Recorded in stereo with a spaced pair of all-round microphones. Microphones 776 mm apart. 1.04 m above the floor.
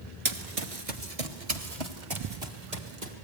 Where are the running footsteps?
40° right (ahead or behind), 1.2 m; by 3.1 s 55° right (ahead or behind), 2.5 m.